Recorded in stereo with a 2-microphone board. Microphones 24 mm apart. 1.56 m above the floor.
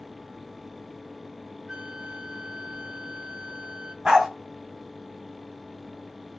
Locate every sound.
1.7 s a flute: 40° right (ahead or behind), 2 m
4.0 s a dog barking: 30° right (ahead or behind), 3 m